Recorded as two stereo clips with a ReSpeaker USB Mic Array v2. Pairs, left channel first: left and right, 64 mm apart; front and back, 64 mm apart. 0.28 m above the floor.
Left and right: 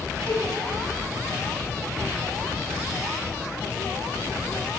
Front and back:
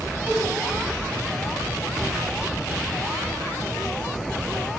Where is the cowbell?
125° right, 1.1 m.